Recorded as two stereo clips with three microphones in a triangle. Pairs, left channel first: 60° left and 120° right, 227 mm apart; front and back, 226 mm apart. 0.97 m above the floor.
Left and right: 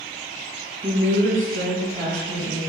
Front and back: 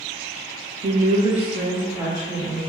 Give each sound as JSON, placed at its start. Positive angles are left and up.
{"t": 0.8, "sound": "a woman speaking", "azimuth_deg": -175, "distance_m": 0.5}